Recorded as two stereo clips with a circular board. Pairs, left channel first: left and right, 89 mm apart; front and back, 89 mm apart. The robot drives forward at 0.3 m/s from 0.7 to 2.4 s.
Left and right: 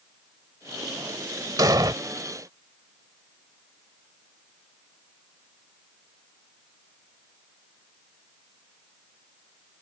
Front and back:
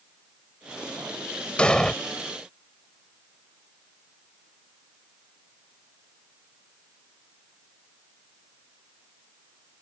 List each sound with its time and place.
1.6 s an explosion: 75° right; by 1.9 s 80° right